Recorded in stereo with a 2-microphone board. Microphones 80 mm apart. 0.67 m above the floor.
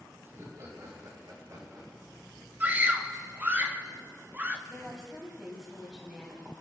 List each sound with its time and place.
0.2 s laughter: 35° right (ahead or behind), 4 m; by 2.3 s 55° right (ahead or behind), 6.5 m
2.6 s a scream: 20° right (ahead or behind), 1.0 m
4.7 s a woman speaking: 10° right (ahead or behind), 4 m